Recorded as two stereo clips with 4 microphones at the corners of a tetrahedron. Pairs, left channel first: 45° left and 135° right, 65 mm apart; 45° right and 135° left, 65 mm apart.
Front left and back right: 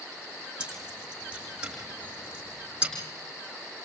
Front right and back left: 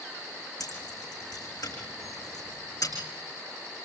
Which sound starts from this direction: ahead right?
Keys jangling, at 0.6 s.